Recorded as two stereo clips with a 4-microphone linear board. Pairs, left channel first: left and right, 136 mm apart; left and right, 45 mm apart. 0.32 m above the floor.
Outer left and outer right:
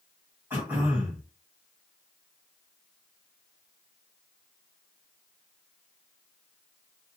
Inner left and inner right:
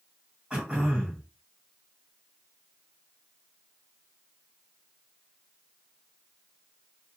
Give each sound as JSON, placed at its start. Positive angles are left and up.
{"t": 0.5, "sound": "throat clearing", "side_deg": -15, "distance_m": 1.5}